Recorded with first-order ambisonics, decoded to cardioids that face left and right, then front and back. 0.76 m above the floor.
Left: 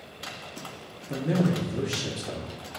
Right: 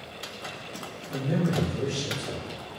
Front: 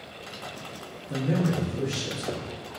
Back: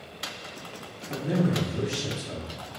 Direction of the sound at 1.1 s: 85° left.